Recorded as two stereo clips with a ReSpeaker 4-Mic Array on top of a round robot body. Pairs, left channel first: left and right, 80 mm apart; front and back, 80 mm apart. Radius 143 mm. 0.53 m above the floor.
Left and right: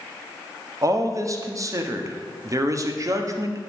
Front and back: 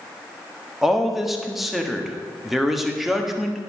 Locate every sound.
0.8 s a man speaking: 95° right, 1.4 m